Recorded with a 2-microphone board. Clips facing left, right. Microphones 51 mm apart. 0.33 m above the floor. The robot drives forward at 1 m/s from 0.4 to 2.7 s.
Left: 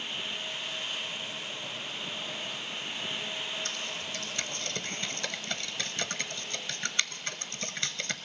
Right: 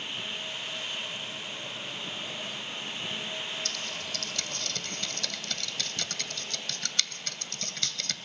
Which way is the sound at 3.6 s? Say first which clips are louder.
Even; 25° left (ahead or behind).